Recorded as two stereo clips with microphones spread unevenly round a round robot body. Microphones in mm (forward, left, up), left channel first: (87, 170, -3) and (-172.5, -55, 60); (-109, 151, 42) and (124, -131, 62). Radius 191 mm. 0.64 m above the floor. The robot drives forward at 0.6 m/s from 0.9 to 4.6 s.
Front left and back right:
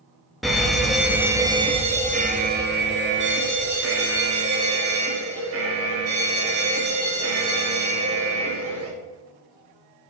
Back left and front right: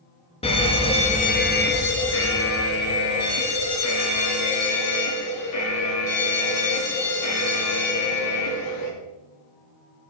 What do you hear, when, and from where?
0.4 s a fire alarm: 100° left, 1.5 m; by 8.9 s 170° left, 2.5 m